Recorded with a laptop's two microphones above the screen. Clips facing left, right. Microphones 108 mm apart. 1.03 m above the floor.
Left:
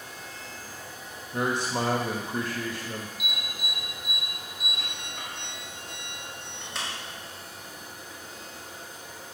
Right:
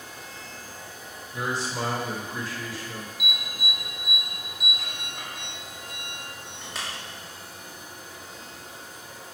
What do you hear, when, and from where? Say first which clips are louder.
1.3 s a man speaking: left 2 dB; 55° left (ahead or behind), 1.6 m
3.2 s an alarm: right 3 dB; centre (ahead or behind), 1.6 m